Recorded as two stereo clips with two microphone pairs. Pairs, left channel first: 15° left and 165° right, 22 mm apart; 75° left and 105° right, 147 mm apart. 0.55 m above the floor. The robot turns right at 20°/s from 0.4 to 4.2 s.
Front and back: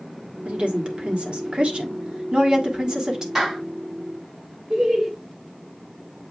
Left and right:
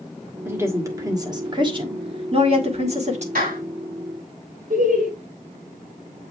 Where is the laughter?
100° right, 2.5 m.